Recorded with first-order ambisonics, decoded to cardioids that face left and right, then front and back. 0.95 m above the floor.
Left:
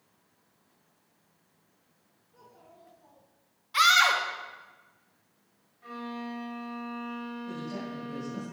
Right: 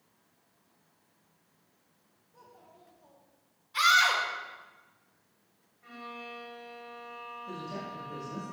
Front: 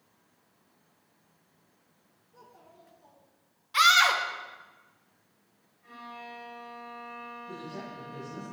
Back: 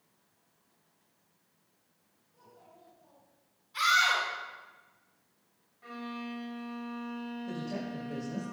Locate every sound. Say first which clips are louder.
2.3 s a child speaking: left 1 dB, front 3 dB; 25° left, 2.5 m
3.7 s a scream: left 2 dB, front 5 dB; 35° left, 1.1 m
5.8 s a violin: left 4 dB, back 2 dB; 145° left, 1.5 m
7.5 s a woman speaking: left 1 dB, back 2 dB; straight behind, 2 m